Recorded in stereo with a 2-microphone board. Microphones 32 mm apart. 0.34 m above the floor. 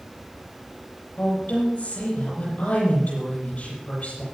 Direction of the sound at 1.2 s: 50° left (ahead or behind).